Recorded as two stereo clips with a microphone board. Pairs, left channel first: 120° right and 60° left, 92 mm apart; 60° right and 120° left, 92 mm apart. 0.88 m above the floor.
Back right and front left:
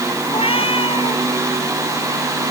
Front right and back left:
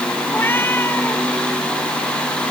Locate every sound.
0.3 s a cat meowing: 130° right